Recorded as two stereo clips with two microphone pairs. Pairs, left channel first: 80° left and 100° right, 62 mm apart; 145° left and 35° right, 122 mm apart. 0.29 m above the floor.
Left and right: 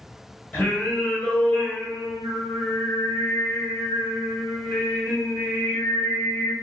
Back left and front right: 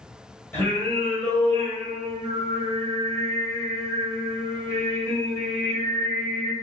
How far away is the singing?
About 1.1 m.